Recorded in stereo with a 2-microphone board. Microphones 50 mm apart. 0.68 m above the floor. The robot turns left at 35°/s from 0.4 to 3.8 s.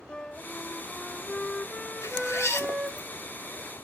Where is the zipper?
85° left, 2 m; by 3.1 s 45° left, 2 m.